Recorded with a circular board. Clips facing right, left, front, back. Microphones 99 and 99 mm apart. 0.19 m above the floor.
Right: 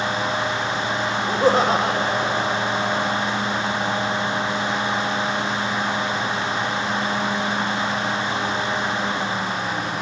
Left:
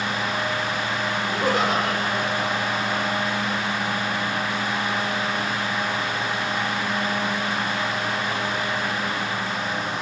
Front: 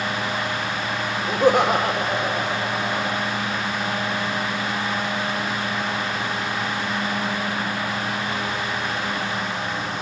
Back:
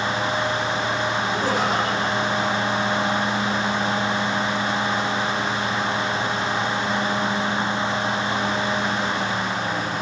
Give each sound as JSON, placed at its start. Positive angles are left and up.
{"t": 1.3, "sound": "laughter", "azimuth_deg": -30, "distance_m": 8.5}